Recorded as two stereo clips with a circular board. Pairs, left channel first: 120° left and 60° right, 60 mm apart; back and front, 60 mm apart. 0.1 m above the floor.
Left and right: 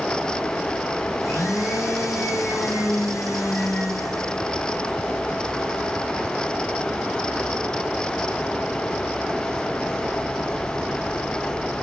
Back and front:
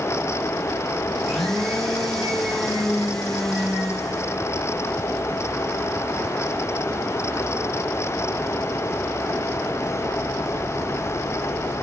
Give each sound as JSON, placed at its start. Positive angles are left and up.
{"t": 1.2, "sound": "a blender", "azimuth_deg": 95, "distance_m": 4.0}